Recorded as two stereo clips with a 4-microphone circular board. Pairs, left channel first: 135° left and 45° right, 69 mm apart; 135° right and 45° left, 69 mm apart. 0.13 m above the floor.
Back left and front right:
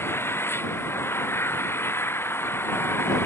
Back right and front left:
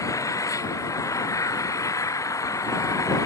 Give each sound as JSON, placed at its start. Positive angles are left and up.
{"t": 0.0, "sound": "an engine running", "azimuth_deg": -170}